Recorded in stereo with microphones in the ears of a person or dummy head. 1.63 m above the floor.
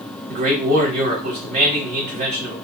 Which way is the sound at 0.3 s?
40° right (ahead or behind).